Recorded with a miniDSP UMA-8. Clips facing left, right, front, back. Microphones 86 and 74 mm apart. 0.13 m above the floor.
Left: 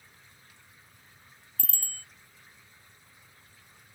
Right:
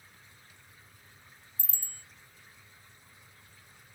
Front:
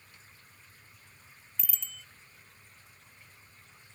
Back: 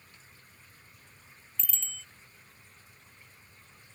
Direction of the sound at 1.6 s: 80° left.